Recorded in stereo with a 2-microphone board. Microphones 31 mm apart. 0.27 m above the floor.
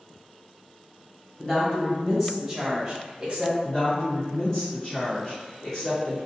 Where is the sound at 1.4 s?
20° left (ahead or behind), 1.2 m; by 3.5 s 30° right (ahead or behind), 1.4 m.